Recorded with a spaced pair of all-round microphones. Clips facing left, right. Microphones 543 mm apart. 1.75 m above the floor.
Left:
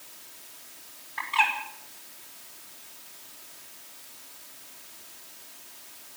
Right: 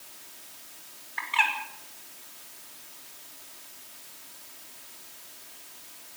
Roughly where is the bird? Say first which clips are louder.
Left 3 dB; left.